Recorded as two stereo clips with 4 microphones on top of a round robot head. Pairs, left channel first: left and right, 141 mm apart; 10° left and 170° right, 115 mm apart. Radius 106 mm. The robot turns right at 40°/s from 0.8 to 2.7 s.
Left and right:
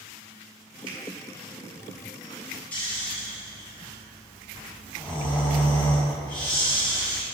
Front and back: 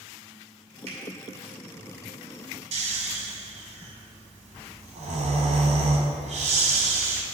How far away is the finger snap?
About 2 m.